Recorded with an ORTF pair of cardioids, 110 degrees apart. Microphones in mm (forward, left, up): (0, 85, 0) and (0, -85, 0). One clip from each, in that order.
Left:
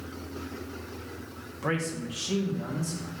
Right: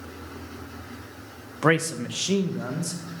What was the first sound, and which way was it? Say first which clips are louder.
A man speaking: right 9 dB; 50° right.